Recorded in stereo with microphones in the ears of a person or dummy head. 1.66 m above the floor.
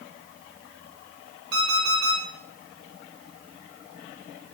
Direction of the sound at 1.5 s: 60° right (ahead or behind).